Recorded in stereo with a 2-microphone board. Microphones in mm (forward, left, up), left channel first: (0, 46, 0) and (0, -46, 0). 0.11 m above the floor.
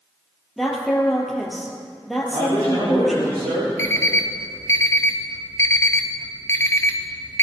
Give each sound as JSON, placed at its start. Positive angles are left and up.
{"t": 0.6, "sound": "a woman speaking", "side_deg": 0, "distance_m": 2.5}
{"t": 2.3, "sound": "a man speaking", "side_deg": -75, "distance_m": 6.0}
{"t": 3.8, "sound": "an alarm clock", "side_deg": 30, "distance_m": 1.1}